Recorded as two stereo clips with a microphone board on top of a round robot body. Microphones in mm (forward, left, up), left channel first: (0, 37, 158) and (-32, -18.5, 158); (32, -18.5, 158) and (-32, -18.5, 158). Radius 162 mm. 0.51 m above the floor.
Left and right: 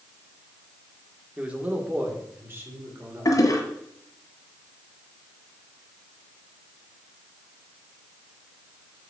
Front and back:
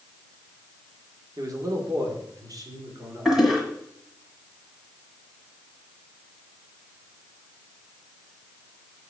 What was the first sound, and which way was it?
A man speaking, 175° left.